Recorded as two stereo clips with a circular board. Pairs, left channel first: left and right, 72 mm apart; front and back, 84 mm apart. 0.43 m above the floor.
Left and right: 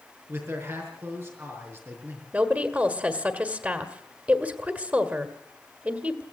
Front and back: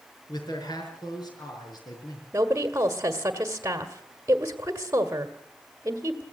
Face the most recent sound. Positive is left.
turn(degrees=-140)